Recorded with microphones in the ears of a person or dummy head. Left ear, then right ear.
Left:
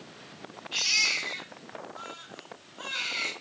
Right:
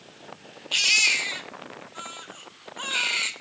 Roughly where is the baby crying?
Right.